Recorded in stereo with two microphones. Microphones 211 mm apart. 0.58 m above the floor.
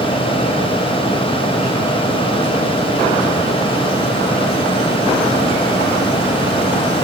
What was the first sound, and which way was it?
Only background noise.